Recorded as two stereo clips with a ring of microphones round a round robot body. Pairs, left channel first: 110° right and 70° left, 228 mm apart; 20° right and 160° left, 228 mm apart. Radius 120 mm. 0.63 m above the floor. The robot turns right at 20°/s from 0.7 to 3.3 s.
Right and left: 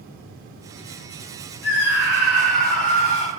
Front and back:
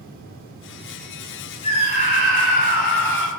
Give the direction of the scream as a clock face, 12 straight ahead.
3 o'clock.